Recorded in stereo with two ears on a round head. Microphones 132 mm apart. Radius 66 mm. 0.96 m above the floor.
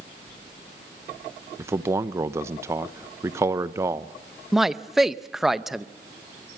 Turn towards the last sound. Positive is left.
turn(degrees=0)  # may be behind; listen again after turning